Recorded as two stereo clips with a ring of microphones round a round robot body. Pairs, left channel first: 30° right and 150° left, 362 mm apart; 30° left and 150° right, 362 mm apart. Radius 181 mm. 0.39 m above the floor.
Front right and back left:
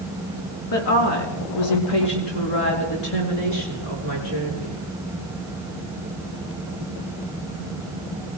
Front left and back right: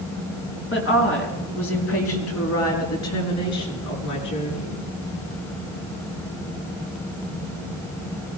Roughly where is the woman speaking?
Ahead right.